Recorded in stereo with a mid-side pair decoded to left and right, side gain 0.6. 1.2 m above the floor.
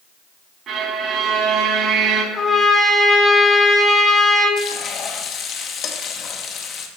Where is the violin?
40° right, 3.5 m.